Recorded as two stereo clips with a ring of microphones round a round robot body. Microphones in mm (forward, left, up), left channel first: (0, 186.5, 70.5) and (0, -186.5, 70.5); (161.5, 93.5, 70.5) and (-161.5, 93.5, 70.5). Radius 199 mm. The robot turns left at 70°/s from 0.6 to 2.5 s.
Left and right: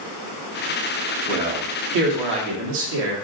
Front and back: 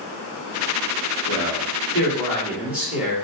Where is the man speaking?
10° right, 1.5 m; by 3.1 s 95° right, 1.5 m.